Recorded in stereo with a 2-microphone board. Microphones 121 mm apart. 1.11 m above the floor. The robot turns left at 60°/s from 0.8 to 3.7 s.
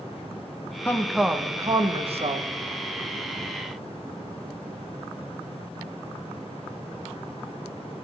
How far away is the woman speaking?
About 0.8 m.